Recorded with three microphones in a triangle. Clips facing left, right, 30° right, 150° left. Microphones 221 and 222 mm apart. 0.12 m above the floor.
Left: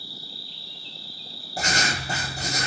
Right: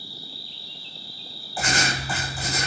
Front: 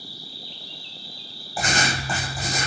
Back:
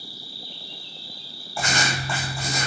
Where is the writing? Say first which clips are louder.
Right 1 dB, front 1 dB; 40° left, 1.4 m.